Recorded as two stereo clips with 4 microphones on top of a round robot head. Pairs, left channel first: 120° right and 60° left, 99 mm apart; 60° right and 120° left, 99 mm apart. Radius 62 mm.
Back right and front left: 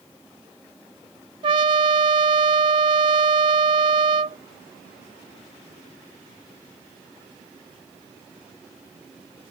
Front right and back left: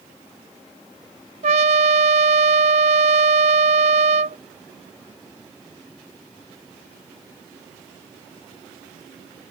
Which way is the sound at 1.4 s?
100° left.